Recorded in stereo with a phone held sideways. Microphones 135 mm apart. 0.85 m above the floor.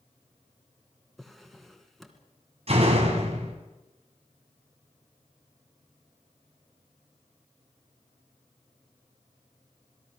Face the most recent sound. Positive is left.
turn(degrees=-50)  # may be behind; listen again after turning